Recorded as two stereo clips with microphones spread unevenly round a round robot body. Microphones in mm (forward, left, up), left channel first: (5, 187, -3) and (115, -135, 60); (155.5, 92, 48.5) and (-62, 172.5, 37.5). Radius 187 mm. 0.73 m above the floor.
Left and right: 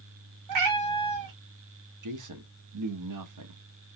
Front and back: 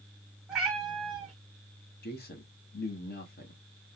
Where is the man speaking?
55° right, 1.1 m.